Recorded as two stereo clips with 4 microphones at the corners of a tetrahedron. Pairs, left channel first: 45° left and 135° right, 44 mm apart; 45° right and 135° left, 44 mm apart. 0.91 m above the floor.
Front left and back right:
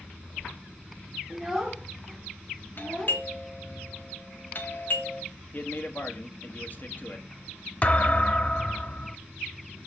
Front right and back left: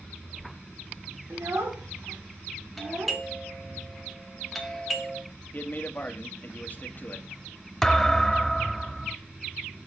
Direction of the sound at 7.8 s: 35° left.